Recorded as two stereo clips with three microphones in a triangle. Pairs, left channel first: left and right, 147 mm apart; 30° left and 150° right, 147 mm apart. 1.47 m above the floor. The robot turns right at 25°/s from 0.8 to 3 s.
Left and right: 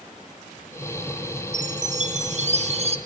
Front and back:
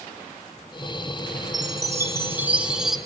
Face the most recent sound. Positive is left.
turn(degrees=-60)